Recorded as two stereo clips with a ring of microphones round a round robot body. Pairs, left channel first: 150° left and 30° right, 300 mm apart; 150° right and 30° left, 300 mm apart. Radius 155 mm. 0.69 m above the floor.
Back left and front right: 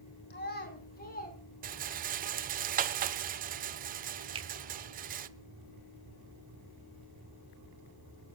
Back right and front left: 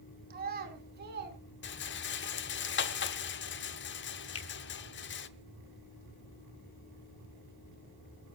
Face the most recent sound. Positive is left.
turn(degrees=-105)